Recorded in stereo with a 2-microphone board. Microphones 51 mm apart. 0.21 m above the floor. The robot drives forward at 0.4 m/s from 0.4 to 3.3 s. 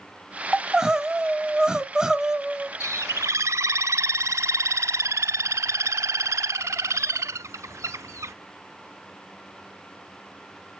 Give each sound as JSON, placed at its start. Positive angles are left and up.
{"t": 0.5, "sound": "crying", "side_deg": -10, "distance_m": 0.9}
{"t": 2.8, "sound": "a bird", "side_deg": -75, "distance_m": 0.7}